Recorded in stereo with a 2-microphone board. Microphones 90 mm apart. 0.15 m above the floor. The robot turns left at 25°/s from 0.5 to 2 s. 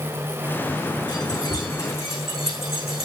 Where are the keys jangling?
55° left (ahead or behind), 7.5 m; by 3.1 s 30° left (ahead or behind), 7.5 m.